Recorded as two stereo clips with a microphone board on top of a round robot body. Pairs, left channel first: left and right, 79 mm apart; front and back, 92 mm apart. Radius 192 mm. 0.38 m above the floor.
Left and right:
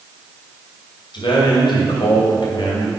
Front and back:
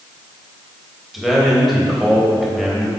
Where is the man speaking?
90° left, 3 m.